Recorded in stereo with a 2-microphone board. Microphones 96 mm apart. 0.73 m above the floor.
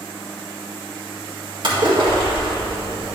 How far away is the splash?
About 1.6 m.